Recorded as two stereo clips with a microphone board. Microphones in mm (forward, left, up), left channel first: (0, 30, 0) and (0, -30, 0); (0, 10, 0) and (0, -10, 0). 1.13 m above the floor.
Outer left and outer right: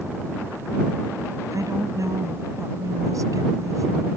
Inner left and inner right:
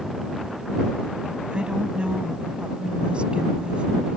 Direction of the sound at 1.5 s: 65° right (ahead or behind).